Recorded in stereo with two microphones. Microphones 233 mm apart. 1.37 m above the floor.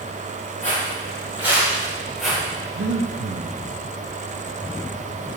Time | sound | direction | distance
0.6 | footsteps | 30° left (ahead or behind) | 2 m
2.8 | breathing | 65° right (ahead or behind) | 0.7 m